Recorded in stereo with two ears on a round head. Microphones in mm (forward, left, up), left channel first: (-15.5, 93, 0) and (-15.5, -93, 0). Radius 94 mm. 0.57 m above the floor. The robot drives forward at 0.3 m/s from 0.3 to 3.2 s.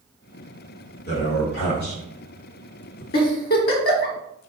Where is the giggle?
50° left (ahead or behind), 1.0 m.